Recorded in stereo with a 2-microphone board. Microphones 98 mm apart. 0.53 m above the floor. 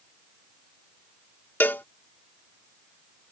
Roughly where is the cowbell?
Centre.